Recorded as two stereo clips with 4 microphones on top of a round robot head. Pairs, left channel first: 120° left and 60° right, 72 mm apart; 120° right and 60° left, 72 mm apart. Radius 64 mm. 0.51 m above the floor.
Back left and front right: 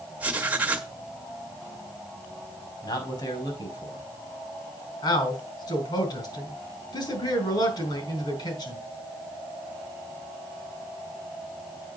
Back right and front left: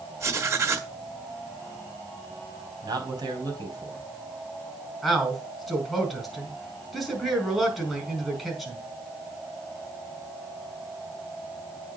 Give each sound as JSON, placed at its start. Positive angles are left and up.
{"t": 0.2, "sound": "writing", "azimuth_deg": 10, "distance_m": 1.6}
{"t": 2.8, "sound": "a man speaking", "azimuth_deg": 90, "distance_m": 4.5}
{"t": 5.0, "sound": "a man speaking", "azimuth_deg": 150, "distance_m": 4.5}